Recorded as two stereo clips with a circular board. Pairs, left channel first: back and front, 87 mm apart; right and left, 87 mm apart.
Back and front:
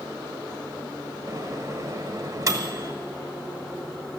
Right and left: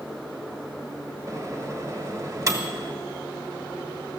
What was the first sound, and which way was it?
A microwave, 45° left.